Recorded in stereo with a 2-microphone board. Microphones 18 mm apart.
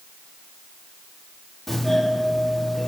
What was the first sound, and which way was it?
A doorbell, 5° left (ahead or behind).